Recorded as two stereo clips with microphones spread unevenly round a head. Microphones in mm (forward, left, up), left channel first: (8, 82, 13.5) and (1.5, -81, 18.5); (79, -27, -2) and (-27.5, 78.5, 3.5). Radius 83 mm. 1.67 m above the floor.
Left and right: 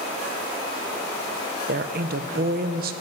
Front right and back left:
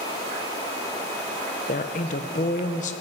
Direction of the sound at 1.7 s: 80° right.